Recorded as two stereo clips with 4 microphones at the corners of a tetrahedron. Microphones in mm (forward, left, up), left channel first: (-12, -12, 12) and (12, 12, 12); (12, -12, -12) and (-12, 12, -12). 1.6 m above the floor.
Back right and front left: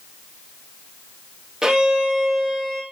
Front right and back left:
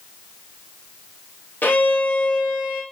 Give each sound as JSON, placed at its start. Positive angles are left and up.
{"t": 1.6, "sound": "a violin", "azimuth_deg": -25, "distance_m": 5.0}